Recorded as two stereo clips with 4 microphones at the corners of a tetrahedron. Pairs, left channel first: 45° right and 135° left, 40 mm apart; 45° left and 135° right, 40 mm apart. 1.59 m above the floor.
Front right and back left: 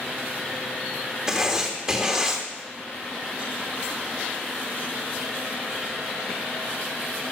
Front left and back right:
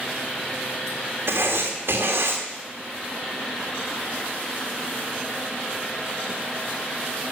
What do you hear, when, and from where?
1.3 s writing: 150° right, 3 m